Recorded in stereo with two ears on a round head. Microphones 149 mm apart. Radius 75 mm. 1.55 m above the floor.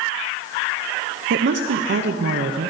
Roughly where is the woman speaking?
Right.